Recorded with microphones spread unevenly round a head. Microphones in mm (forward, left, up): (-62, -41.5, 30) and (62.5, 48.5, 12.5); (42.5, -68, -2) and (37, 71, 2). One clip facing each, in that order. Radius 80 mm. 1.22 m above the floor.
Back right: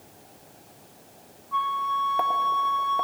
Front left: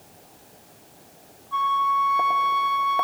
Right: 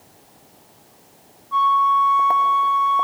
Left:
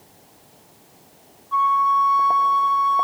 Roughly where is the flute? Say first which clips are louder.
Front left 4 dB, right 1 dB; ahead.